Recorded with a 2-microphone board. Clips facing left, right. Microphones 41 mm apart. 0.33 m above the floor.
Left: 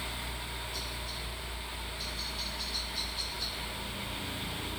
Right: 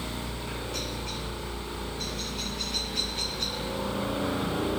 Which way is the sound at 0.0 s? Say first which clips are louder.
Right 4 dB; 65° right (ahead or behind).